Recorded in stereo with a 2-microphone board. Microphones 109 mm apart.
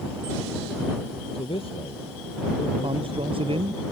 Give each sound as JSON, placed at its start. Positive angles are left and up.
{"t": 1.4, "sound": "a man speaking", "side_deg": 55}
{"t": 2.8, "sound": "a man speaking", "side_deg": -55}